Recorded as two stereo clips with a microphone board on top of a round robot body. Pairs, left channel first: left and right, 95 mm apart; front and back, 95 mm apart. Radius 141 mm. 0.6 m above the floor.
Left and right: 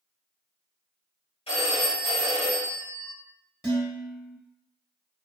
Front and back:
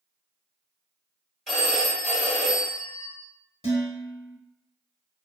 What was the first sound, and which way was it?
A phone ringing, 90° left.